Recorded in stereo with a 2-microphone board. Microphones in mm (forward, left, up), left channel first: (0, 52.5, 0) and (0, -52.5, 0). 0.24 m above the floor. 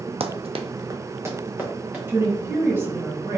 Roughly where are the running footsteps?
Right.